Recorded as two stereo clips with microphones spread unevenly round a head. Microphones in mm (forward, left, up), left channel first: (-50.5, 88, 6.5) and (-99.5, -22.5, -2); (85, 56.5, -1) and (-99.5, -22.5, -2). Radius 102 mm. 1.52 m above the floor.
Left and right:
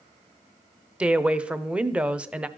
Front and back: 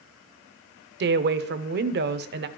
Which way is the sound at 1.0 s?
165° left.